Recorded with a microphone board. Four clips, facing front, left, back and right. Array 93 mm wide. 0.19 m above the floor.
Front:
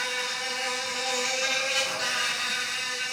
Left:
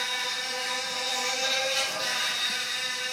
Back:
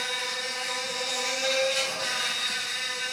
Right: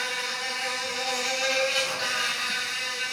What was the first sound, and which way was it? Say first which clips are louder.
An insect: right 2 dB, front 1 dB; 45° right.